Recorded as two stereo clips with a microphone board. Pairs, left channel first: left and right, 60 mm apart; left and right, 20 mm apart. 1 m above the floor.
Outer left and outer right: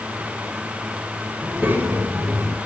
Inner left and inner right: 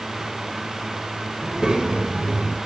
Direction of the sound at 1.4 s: 30° right (ahead or behind).